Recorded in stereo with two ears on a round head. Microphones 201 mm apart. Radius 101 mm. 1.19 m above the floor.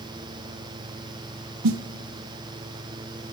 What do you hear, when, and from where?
1.6 s a snare drum: 90° right, 0.8 m